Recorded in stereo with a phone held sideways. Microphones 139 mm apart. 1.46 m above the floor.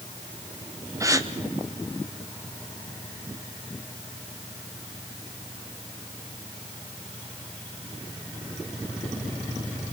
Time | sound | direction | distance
1.0 | a gasp | 25° right (ahead or behind) | 1.1 m